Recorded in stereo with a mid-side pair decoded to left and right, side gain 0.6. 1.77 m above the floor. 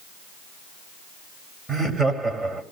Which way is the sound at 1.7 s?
20° right.